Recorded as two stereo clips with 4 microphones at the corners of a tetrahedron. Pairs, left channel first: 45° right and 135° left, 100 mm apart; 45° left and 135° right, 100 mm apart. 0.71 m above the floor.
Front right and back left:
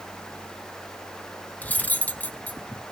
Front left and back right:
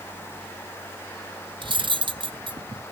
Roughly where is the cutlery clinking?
Behind right.